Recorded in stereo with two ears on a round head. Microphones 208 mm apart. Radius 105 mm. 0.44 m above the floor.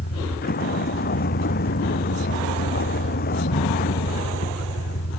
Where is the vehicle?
45° left (ahead or behind).